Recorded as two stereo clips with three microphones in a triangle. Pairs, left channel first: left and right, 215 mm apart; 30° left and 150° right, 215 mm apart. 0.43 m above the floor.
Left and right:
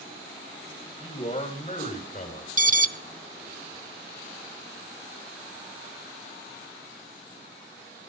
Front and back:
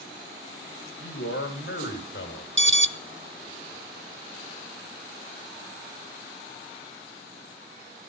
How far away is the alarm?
About 0.8 m.